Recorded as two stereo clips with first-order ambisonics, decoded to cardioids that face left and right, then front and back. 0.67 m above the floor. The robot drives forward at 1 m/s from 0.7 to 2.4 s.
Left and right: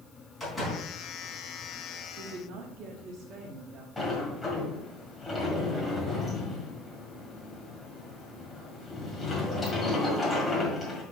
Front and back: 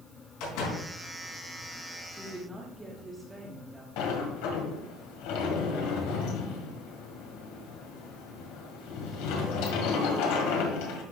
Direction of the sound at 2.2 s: 90° right.